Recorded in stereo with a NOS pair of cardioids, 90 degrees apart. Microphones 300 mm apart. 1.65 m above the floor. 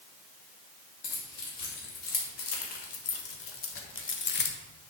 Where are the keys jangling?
60° left, 3 m; by 4.6 s 40° left, 1.0 m.